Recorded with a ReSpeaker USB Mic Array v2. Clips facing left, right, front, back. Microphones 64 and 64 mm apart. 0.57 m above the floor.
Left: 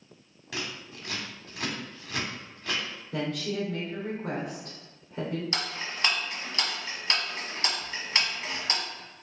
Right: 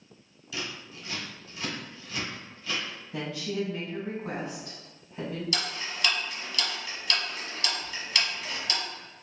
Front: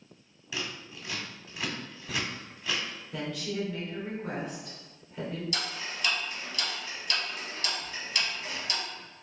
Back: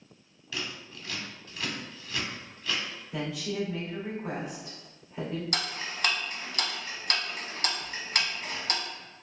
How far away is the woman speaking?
About 1.8 m.